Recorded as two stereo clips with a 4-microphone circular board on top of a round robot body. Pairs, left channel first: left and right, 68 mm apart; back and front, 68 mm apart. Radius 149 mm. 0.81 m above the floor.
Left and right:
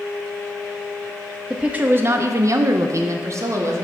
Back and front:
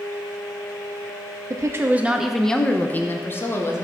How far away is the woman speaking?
About 0.6 m.